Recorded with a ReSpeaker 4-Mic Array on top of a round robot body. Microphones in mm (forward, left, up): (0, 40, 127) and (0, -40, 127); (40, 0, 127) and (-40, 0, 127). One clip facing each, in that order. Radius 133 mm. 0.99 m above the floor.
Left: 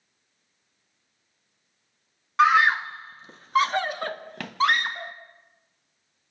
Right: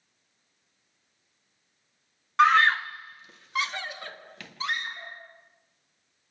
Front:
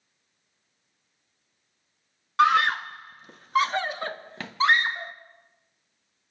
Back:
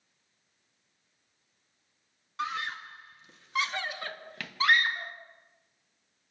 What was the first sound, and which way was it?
A scream, straight ahead.